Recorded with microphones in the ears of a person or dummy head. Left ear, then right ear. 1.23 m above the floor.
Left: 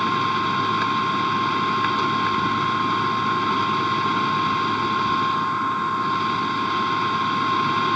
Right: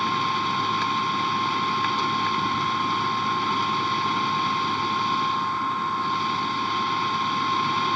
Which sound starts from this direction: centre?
A machine running, at 0.0 s.